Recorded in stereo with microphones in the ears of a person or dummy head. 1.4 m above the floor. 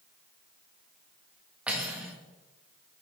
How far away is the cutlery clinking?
About 1.3 m.